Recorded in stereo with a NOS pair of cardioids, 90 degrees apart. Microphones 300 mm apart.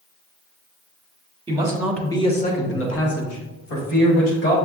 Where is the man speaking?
20° right, 1.2 m; by 4.5 s 80° left, 2.5 m.